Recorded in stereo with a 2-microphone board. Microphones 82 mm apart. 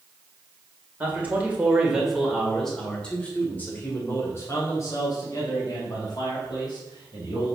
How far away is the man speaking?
About 1.9 m.